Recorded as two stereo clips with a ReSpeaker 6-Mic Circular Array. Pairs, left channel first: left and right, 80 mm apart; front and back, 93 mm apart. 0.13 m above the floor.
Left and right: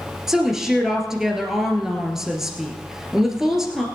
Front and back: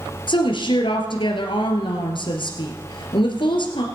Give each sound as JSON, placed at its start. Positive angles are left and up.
{"t": 0.3, "sound": "a woman speaking", "azimuth_deg": -5, "distance_m": 2.0}